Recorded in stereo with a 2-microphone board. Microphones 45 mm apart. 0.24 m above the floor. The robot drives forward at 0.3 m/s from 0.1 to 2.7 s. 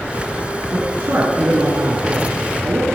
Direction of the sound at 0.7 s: 60° right (ahead or behind).